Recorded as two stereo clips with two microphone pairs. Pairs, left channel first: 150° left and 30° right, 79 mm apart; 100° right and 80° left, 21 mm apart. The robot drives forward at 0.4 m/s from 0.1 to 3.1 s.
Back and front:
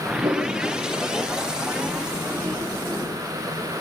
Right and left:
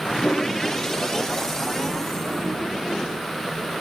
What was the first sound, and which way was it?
A whoosh, 55° right.